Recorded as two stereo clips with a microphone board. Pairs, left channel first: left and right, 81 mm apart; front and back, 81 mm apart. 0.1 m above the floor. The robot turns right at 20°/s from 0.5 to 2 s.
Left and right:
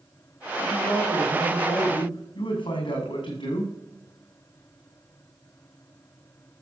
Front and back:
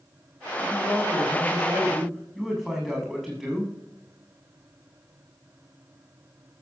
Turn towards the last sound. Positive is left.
turn(degrees=90)